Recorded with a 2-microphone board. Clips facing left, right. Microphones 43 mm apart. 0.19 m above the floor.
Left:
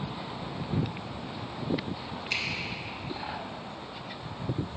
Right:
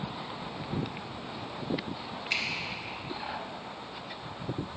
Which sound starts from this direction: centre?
A finger snap, at 2.3 s.